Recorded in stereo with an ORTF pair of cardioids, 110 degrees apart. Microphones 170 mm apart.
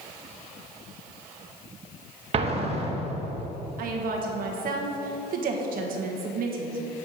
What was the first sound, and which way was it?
An explosion, 40° right.